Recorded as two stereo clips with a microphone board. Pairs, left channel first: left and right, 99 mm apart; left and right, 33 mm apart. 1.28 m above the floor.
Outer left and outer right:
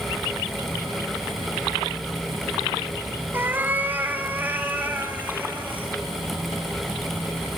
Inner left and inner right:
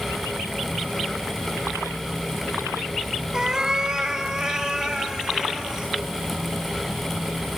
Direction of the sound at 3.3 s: 20° right (ahead or behind).